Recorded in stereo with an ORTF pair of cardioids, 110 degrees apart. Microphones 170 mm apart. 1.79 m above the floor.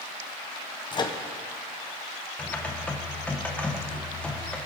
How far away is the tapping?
I don't hear tapping.